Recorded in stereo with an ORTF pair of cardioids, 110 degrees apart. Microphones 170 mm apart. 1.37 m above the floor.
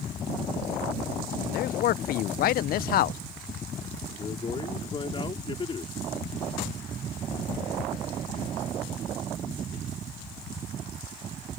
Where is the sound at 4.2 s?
30° left.